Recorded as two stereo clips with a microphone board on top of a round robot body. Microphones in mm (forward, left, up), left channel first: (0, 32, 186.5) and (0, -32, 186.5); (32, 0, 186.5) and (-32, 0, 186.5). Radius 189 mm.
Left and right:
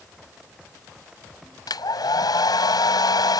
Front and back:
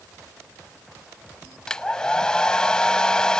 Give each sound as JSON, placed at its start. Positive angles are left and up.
{"t": 1.7, "sound": "a hair dryer", "azimuth_deg": 80}